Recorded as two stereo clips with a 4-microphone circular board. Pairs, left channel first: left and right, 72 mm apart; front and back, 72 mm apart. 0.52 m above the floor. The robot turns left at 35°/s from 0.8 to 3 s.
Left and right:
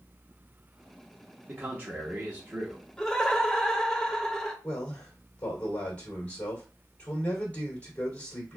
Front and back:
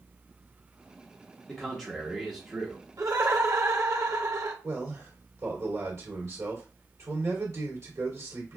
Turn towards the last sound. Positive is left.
turn(degrees=155)